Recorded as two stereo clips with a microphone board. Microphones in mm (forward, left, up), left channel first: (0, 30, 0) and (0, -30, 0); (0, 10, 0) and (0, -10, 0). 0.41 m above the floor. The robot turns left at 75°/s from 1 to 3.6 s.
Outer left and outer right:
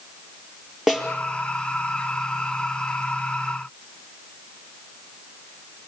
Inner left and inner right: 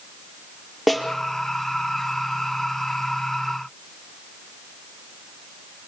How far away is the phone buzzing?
I don't hear a phone buzzing.